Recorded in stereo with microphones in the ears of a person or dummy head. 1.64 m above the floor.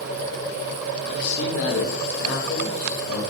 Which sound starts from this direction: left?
A man speaking, at 1.1 s.